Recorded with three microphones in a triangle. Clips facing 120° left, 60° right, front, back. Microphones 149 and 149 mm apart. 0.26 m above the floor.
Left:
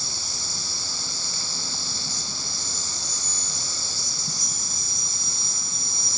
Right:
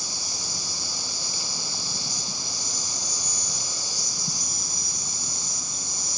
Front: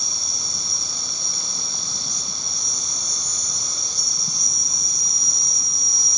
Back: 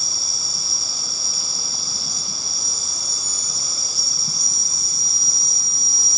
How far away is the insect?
About 1.1 m.